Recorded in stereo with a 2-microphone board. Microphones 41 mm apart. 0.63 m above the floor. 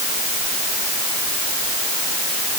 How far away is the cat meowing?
I don't hear a cat meowing.